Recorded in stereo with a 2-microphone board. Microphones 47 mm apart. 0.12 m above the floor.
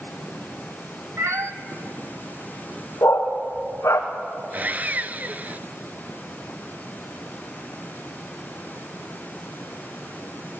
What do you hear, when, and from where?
1.2 s a cat meowing: 75° right (ahead or behind), 1.2 m
3.0 s a dog barking: 80° left, 4 m
4.5 s sawing: 35° right (ahead or behind), 0.7 m